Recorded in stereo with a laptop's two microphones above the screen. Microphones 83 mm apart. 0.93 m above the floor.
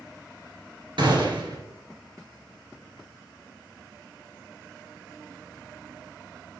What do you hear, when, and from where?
1.0 s a gunshot: 70° right (ahead or behind), 2.5 m